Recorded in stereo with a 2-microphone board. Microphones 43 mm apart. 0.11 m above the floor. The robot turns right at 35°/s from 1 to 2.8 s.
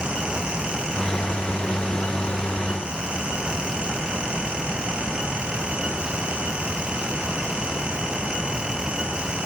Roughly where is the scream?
No scream in this recording.